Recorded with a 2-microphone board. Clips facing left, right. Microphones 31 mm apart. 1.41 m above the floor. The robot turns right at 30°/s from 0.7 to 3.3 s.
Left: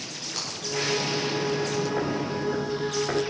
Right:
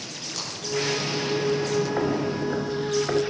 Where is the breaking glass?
15° left (ahead or behind), 10 m.